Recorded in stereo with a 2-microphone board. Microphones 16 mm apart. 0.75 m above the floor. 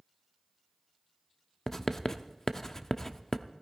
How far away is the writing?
About 0.6 m.